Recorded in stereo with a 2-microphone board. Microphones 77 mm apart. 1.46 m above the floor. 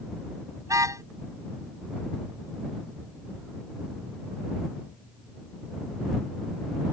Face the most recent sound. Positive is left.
turn(degrees=-45)  # may be behind; listen again after turning